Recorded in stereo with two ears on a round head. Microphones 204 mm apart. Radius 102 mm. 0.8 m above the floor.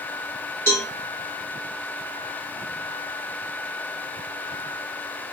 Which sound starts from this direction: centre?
A cowbell, at 0.7 s.